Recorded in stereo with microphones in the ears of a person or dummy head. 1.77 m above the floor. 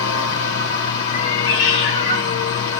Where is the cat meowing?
50° left (ahead or behind), 2 m.